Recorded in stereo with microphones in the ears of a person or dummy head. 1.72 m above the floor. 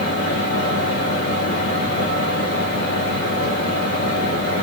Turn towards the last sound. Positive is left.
turn(degrees=55)  # may be behind; listen again after turning